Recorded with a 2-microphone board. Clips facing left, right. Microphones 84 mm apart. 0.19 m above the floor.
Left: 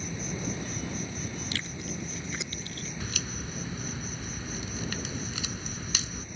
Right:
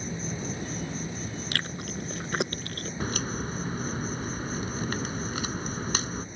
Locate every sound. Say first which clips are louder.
0.0 s an insect: right 1 dB; 35° right (ahead or behind)
1.5 s chewing: right 3 dB; 60° right (ahead or behind)
3.0 s a crack: right 10 dB; 45° right (ahead or behind)